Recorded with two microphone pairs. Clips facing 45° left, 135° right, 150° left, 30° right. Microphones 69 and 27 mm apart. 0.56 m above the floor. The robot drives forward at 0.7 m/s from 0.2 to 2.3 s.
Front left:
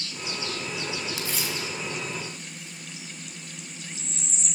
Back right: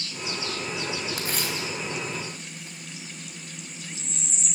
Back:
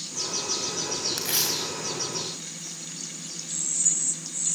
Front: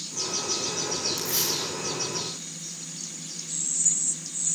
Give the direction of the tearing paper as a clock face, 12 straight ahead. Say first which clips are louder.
Back right 1 dB, back 1 dB; 6 o'clock.